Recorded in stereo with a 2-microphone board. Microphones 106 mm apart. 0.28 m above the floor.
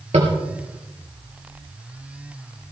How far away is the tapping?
About 3.5 m.